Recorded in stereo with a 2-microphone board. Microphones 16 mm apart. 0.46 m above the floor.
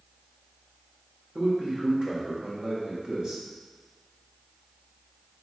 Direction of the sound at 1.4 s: 50° right (ahead or behind).